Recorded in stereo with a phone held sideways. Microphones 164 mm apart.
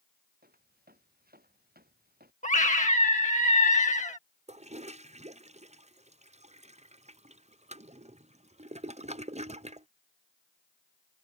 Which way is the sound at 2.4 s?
50° left (ahead or behind).